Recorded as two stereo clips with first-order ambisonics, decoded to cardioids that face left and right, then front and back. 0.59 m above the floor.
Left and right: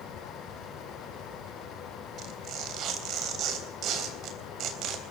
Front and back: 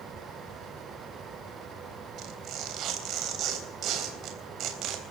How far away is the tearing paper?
About 3.5 m.